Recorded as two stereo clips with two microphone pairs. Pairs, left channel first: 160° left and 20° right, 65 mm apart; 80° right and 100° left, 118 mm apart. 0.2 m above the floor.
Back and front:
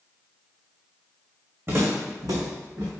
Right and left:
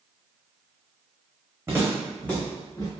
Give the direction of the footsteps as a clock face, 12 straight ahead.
11 o'clock.